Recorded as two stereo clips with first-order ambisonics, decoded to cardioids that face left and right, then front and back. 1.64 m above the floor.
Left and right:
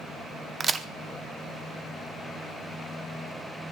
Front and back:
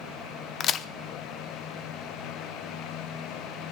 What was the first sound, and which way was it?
A crack, 35° right.